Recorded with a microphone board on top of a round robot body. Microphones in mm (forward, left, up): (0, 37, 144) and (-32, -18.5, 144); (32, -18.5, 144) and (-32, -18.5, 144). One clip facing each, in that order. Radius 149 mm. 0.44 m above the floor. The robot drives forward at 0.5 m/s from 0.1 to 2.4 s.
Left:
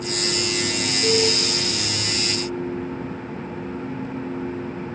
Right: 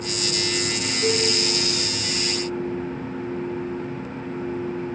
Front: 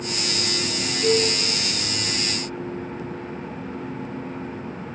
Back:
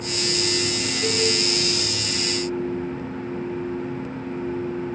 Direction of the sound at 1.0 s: 95° right.